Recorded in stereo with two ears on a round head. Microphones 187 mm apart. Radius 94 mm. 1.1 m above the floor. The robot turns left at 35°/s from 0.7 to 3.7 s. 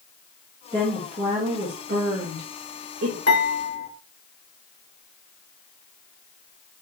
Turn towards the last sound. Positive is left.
turn(degrees=40)  # may be behind; listen again after turning